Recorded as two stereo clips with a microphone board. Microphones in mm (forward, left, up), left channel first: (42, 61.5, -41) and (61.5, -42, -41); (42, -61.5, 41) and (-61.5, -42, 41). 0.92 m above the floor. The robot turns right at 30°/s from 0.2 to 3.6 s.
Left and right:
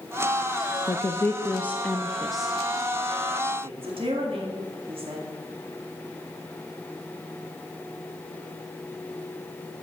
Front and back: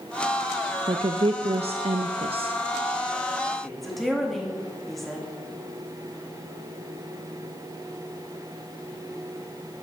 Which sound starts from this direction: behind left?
A woman speaking, at 0.9 s.